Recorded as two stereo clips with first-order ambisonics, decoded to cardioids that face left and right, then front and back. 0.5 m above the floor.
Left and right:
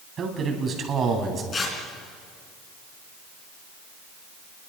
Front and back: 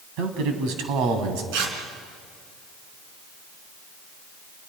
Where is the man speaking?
155° right, 3.5 m.